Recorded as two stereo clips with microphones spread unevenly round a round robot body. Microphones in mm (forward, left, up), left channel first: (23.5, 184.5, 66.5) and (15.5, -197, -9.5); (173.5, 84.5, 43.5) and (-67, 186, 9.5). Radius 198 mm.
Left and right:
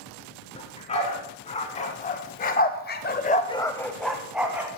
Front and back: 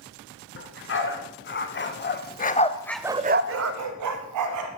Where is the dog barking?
15° left, 2.5 m; by 4.7 s straight behind, 1.3 m.